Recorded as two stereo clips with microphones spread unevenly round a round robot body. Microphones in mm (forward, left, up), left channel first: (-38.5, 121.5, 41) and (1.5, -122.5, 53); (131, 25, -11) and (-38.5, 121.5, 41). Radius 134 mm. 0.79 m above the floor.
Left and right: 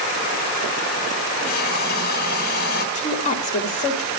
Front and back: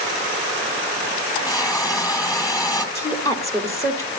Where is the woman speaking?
40° left, 2 m.